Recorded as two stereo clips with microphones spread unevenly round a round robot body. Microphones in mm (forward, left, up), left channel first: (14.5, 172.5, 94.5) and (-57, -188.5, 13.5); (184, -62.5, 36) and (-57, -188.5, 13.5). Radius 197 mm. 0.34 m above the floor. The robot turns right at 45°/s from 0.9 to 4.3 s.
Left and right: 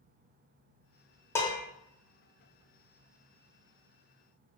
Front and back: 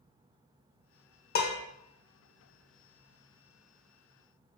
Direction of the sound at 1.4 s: 15° right.